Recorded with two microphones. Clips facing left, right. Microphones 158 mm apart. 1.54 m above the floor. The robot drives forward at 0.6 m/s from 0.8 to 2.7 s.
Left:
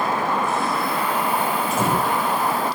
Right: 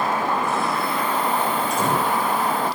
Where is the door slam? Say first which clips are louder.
Even; 5° left (ahead or behind), 8.5 m.